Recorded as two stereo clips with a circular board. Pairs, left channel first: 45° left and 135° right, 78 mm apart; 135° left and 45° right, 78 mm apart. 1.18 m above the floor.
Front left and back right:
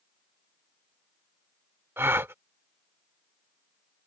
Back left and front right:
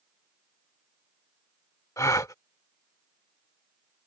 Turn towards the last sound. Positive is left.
turn(degrees=170)